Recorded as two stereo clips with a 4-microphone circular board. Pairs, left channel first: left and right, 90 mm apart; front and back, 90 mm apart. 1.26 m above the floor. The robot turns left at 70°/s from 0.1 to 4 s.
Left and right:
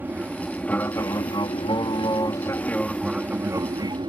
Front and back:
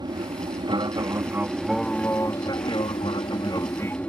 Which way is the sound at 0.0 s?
155° right.